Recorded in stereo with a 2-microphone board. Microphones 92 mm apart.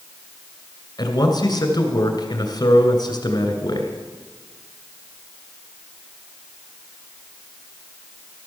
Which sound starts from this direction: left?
A man speaking, at 1.0 s.